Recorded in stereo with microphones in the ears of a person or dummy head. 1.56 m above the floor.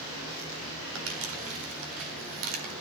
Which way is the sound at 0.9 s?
80° right.